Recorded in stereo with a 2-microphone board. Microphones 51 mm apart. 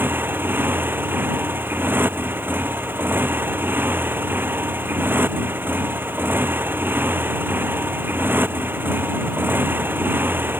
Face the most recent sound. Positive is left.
turn(degrees=-40)  # may be behind; listen again after turning